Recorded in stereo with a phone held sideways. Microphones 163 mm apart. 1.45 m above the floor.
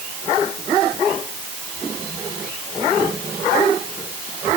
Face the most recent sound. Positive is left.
No sound to turn to.